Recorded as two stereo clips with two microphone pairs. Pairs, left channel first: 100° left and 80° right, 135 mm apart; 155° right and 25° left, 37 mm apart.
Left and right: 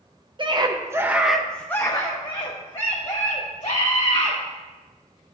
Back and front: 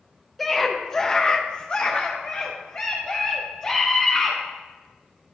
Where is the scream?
70° right, 0.8 m; by 4.4 s 140° left, 1.8 m.